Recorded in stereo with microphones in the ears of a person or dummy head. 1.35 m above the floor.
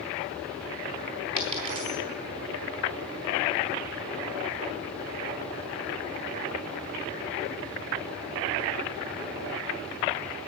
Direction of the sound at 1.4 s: 30° right (ahead or behind).